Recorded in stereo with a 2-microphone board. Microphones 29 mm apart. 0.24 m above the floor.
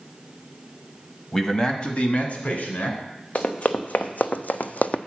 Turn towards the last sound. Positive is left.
turn(degrees=55)  # may be behind; listen again after turning